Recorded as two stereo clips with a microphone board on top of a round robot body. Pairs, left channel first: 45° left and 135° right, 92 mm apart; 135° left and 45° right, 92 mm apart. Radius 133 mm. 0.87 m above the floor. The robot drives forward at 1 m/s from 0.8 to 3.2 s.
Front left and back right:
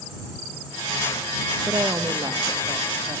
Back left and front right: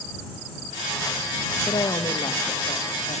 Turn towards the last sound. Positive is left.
turn(degrees=175)